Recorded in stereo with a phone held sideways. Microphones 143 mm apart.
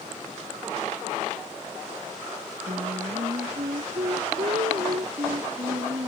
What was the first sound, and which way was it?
Singing, 65° right (ahead or behind).